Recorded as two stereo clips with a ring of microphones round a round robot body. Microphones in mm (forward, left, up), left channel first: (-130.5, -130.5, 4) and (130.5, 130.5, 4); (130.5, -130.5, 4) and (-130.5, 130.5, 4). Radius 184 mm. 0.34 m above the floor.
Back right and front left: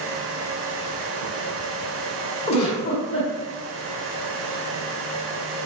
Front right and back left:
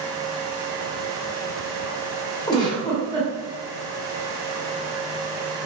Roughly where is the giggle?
Right.